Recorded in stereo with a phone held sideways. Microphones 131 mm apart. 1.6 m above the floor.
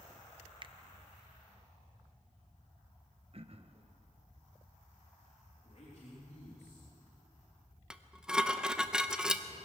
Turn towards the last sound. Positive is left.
turn(degrees=-5)  # may be behind; listen again after turning